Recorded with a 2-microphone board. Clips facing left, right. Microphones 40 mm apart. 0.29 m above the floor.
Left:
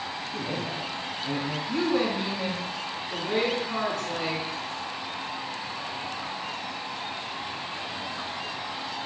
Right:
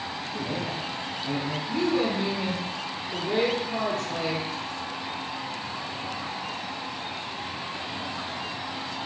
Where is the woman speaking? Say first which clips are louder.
Even; 65° left (ahead or behind), 4 m.